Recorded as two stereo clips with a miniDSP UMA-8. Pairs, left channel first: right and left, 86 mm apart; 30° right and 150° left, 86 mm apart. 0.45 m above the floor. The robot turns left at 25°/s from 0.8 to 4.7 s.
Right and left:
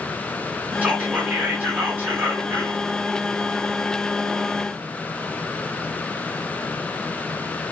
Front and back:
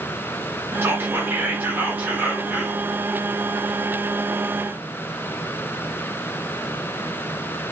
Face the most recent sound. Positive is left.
turn(degrees=35)